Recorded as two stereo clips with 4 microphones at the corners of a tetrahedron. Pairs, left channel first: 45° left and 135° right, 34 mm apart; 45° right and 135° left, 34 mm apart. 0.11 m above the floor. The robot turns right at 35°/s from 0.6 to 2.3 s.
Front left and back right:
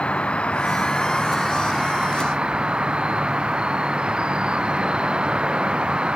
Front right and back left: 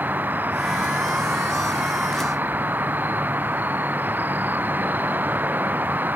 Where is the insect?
105° left; by 6.2 s 165° left.